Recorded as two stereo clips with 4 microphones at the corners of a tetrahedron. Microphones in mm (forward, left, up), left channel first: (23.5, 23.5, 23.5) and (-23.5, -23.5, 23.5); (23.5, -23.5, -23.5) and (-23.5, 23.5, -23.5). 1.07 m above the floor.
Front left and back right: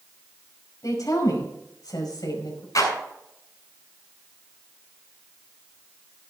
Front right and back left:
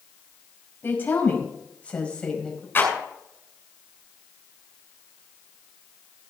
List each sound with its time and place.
0.8 s a woman speaking: 15° left, 5.5 m; by 2.6 s 35° left, 5 m
2.8 s a clap: 15° left, 6.5 m